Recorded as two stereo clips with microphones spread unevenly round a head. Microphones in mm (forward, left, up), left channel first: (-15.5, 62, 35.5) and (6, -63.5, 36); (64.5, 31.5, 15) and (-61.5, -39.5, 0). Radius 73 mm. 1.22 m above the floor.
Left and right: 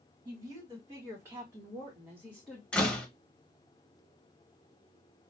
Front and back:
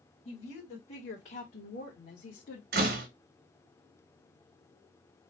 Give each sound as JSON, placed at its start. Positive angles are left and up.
{"t": 0.2, "sound": "a woman speaking", "azimuth_deg": -20, "distance_m": 2.5}
{"t": 2.7, "sound": "a door slam", "azimuth_deg": 180, "distance_m": 1.1}